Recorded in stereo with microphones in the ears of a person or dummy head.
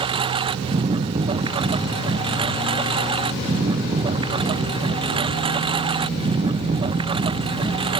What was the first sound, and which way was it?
A lawn mower, 25° right (ahead or behind).